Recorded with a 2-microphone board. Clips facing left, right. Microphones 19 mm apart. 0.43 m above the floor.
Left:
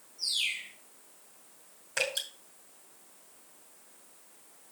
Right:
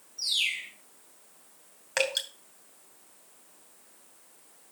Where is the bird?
70° right (ahead or behind), 4 m.